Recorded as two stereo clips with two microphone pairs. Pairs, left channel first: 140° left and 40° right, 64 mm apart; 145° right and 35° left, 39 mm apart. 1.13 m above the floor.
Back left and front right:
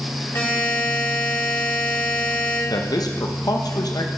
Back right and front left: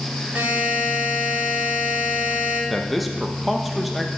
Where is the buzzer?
90° left, 1.9 m.